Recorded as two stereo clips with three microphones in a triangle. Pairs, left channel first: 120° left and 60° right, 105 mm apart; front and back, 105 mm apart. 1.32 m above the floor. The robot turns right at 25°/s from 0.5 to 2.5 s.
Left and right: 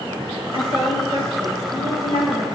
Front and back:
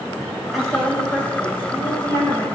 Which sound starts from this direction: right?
A woman speaking, at 0.5 s.